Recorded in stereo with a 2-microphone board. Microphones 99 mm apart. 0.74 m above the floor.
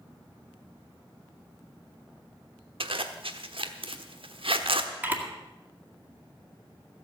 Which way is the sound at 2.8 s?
70° right (ahead or behind).